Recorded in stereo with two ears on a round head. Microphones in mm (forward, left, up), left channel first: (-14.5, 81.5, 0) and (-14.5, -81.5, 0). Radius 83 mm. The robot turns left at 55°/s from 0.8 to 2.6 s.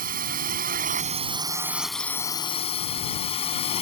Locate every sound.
0.0 s a drone: 120° right; by 3.8 s 140° left